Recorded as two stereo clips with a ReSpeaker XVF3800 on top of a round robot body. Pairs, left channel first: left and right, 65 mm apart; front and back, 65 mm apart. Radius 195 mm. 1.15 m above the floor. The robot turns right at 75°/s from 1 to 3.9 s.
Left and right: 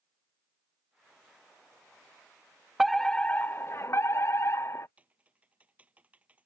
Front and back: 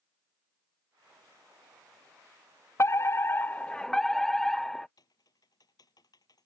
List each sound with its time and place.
2.8 s a fire alarm: 5° right; by 4.9 s 80° left
5.0 s typing on a keyboard: 20° right